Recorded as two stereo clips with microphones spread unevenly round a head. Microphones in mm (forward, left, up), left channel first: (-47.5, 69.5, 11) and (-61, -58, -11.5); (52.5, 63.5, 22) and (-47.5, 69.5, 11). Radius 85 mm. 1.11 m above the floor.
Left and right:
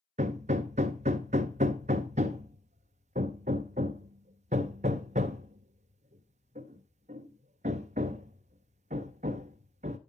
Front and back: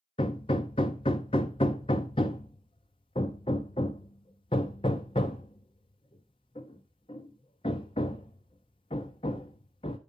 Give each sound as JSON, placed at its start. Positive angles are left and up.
{"t": 0.2, "sound": "hammering", "azimuth_deg": -45, "distance_m": 0.6}